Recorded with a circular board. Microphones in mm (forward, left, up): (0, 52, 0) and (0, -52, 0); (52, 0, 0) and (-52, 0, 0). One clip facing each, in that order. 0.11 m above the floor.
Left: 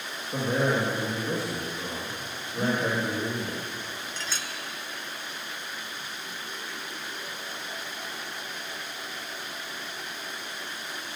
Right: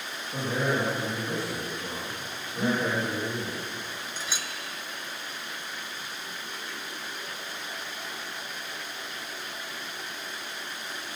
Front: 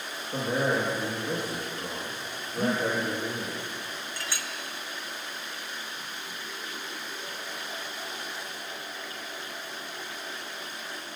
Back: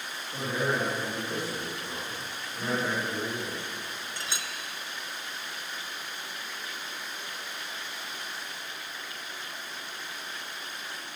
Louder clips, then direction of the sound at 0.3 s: Left 2 dB, front 3 dB; 45° left.